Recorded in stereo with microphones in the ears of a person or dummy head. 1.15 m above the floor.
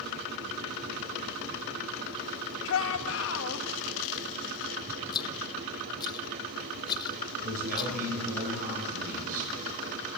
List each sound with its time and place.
2.6 s a shout: 75° left (ahead or behind), 1.8 m
5.1 s a rattle: 20° left (ahead or behind), 0.7 m
7.4 s a man speaking: 50° right (ahead or behind), 8.5 m